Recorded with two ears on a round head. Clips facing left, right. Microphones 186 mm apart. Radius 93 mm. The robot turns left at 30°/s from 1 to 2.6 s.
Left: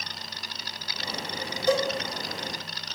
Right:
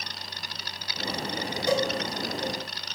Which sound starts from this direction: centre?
A cowbell, at 1.7 s.